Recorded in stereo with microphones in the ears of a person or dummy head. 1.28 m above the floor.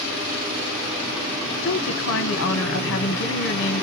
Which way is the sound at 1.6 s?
60° left (ahead or behind).